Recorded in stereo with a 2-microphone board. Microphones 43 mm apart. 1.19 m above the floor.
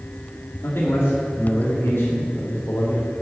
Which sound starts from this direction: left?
A man speaking, at 0.6 s.